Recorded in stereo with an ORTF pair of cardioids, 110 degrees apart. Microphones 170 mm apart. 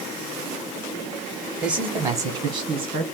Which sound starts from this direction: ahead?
A man speaking, at 1.6 s.